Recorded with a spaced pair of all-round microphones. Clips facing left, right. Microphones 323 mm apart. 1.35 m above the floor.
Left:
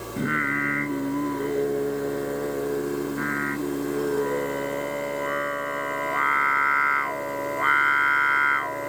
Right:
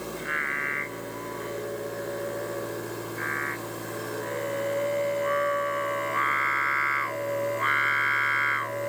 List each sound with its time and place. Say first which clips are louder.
0.2 s singing: left 10 dB; 65° left (ahead or behind)